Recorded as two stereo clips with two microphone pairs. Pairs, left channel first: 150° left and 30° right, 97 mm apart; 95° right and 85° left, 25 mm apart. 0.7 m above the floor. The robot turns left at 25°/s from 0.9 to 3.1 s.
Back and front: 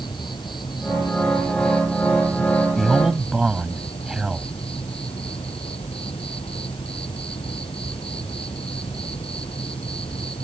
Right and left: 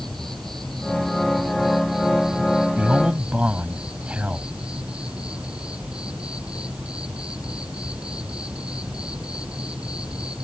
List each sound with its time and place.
0.0 s an insect: 170° right; by 10.4 s 135° left
2.8 s a man speaking: 60° left; by 4.5 s 55° left